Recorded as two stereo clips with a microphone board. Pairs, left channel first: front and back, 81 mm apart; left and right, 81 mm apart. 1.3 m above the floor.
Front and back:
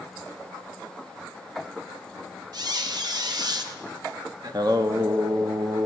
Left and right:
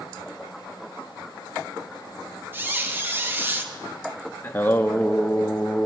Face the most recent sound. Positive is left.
turn(degrees=150)